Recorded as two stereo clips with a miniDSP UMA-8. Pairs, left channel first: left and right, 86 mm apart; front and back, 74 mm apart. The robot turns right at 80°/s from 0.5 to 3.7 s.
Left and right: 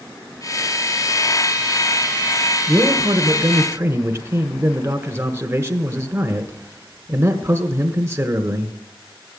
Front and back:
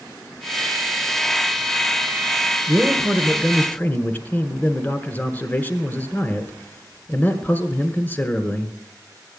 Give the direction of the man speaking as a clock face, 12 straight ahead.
4 o'clock.